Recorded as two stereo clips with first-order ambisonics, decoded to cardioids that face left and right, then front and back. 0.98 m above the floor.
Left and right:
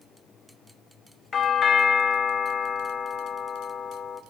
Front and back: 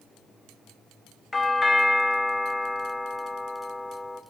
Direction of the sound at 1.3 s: 65° left.